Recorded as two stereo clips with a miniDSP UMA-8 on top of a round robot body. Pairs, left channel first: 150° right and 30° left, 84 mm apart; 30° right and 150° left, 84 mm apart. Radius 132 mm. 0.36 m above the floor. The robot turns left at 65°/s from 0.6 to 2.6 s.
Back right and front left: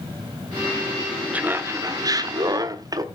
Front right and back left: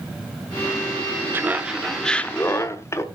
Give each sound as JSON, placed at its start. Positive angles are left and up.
{"t": 1.3, "sound": "laughter", "azimuth_deg": 95, "distance_m": 1.3}